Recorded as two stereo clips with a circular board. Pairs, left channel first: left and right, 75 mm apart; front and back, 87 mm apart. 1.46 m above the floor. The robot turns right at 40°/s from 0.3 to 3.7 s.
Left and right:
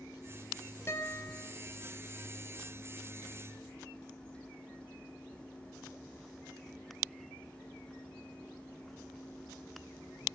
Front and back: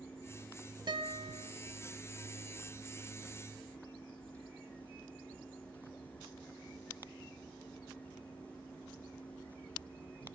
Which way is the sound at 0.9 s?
145° left.